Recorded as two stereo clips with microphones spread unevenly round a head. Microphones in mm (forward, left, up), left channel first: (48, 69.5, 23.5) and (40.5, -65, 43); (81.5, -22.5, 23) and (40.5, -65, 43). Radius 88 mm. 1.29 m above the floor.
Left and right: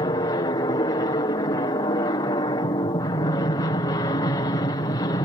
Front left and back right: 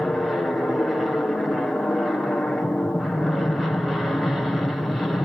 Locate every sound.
0.0 s an aircraft: 115° left